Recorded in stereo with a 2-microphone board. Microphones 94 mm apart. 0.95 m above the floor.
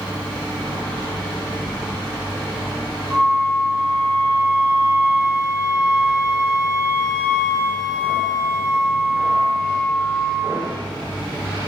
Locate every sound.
3.1 s a flute: 5° left (ahead or behind), 3 m